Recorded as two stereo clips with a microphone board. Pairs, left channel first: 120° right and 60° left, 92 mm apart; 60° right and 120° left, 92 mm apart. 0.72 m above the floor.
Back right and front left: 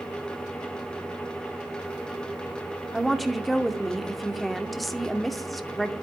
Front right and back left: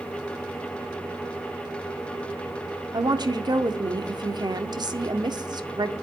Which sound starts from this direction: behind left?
A woman speaking, at 2.9 s.